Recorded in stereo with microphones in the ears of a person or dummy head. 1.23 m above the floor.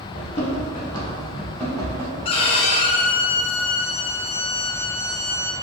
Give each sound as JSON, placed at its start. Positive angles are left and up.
{"t": 0.1, "sound": "running footsteps", "side_deg": 35, "distance_m": 1.9}
{"t": 2.2, "sound": "a violin", "side_deg": 35, "distance_m": 0.7}